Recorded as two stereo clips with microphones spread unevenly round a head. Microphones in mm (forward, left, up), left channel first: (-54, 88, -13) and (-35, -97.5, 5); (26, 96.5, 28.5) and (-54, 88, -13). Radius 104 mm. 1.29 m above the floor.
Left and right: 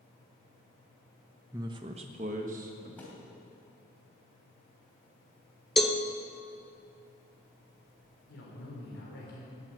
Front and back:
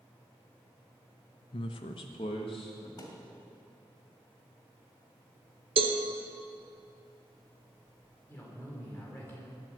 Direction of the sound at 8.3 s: 60° left.